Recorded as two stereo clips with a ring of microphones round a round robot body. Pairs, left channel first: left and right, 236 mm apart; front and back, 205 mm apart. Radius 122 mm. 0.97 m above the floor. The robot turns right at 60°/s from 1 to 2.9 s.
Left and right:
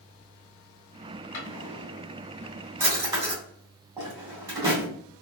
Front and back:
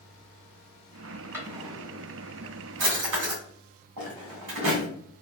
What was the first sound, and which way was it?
A drawer, 100° left.